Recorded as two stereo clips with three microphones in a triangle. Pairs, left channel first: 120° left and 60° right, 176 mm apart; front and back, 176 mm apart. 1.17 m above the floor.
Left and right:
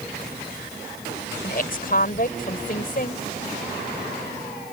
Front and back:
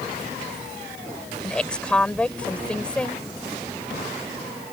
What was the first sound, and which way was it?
A woman speaking, 85° left.